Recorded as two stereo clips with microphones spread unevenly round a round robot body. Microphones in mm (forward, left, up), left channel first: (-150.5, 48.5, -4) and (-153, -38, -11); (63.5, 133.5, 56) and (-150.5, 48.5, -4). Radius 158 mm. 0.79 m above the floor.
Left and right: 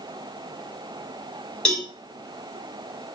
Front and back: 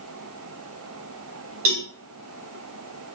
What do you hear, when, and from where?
1.6 s a cowbell: 170° left, 1.8 m